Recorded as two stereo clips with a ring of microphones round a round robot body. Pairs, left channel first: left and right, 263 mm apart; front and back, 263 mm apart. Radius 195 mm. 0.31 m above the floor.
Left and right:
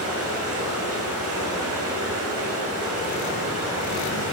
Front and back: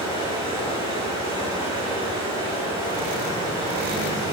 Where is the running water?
105° right, 2.0 m.